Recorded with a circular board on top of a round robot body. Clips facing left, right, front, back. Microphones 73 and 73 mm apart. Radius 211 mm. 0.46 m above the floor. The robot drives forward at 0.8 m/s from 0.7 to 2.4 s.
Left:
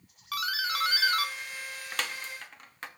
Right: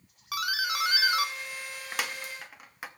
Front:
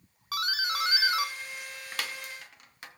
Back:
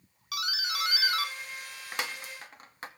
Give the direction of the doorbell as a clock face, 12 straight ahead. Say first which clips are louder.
Right 1 dB, front 4 dB; 1 o'clock.